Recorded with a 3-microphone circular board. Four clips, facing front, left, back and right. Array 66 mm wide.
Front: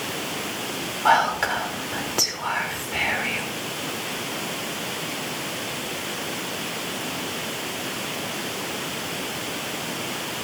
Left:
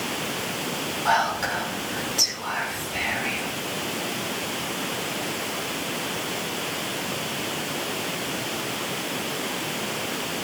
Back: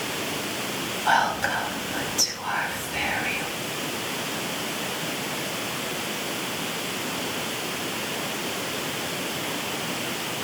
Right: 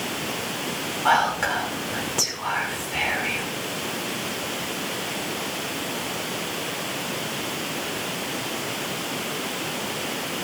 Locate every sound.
1.1 s whispering: 20° right, 6.5 m